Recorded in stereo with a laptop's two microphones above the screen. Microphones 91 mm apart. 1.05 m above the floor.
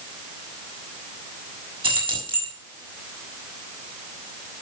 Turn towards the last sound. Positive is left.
turn(degrees=-65)  # may be behind; listen again after turning